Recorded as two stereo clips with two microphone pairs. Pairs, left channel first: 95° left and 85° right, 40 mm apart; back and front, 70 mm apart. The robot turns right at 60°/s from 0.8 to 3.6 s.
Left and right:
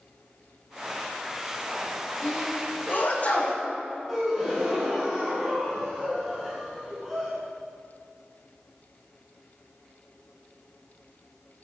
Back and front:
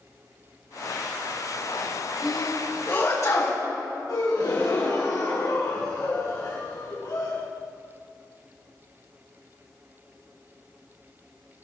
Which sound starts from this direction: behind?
A gasp, at 4.1 s.